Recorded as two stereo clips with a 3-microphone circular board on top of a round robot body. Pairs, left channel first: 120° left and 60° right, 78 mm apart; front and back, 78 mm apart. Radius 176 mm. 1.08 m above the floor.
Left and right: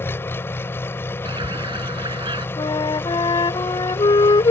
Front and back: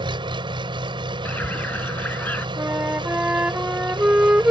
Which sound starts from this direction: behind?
An engine running, at 0.0 s.